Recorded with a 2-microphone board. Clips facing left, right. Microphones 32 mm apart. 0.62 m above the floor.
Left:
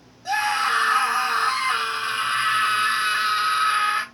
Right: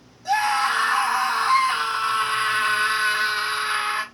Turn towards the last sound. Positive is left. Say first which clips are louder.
# right 1 dB
turn(degrees=25)  # may be behind; listen again after turning